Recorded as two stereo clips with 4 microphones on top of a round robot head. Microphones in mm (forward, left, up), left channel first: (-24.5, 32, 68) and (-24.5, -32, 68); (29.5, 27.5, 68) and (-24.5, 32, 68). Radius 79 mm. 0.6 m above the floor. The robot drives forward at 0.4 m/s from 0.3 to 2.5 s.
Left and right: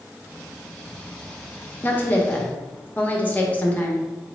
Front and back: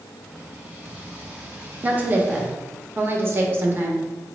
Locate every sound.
1.8 s a woman speaking: 130° left, 0.9 m; by 4.0 s 145° left, 1.1 m